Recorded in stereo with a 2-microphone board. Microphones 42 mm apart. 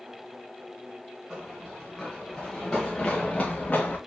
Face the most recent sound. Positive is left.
turn(degrees=40)  # may be behind; listen again after turning